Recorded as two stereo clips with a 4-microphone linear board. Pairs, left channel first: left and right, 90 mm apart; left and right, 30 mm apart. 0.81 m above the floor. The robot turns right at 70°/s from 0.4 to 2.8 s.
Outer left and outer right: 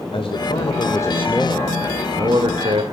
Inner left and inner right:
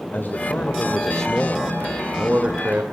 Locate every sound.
0.1 s a man speaking: 100° left, 2.5 m; by 2.8 s 90° right, 2.5 m